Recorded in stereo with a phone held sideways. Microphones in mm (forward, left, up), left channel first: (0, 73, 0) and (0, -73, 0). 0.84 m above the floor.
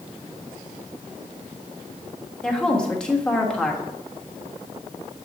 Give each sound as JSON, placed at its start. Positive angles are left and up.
{"t": 2.4, "sound": "a woman speaking", "side_deg": 5, "distance_m": 1.2}